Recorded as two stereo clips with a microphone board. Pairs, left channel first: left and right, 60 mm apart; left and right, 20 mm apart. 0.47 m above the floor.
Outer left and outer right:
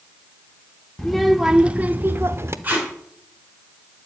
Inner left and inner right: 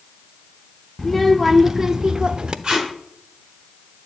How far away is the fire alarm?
No fire alarm in this recording.